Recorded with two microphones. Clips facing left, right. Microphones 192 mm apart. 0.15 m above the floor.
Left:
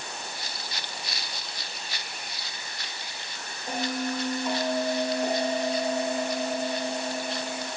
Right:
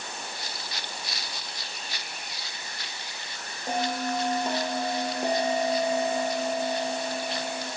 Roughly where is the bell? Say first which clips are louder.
Right 1 dB; right.